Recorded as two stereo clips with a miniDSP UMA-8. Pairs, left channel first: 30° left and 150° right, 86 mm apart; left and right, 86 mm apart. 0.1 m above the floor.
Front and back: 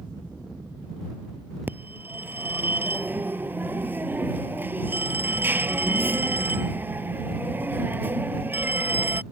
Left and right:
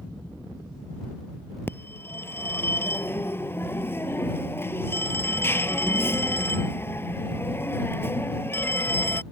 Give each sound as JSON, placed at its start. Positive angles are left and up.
{"t": 1.7, "sound": "a phone ringing", "azimuth_deg": 150}